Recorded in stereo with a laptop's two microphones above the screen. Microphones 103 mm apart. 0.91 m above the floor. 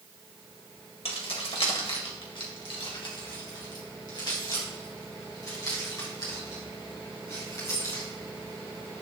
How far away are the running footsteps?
No running footsteps in this recording.